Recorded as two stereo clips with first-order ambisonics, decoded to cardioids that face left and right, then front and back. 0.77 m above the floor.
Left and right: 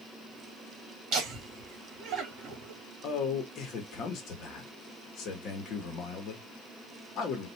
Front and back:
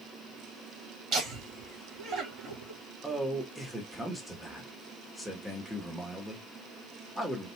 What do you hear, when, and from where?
1.1 s laughter: 135° right, 2 m
3.0 s a man speaking: 95° left, 1.2 m